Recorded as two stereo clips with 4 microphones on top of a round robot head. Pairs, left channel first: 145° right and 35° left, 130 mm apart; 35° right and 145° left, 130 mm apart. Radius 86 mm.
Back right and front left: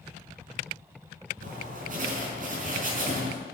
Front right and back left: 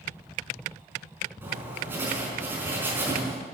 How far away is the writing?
About 4.5 m.